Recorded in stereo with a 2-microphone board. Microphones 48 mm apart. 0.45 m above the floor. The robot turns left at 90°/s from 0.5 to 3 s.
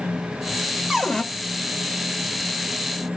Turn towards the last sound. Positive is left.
turn(degrees=0)